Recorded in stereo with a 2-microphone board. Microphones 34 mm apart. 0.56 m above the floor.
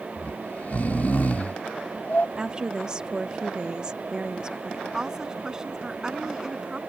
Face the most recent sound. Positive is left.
turn(degrees=-20)  # may be behind; listen again after turning